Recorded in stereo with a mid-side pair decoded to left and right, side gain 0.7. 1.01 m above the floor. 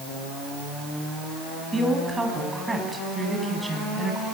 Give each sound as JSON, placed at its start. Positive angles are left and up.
{"t": 1.7, "sound": "a woman speaking", "azimuth_deg": -15, "distance_m": 9.5}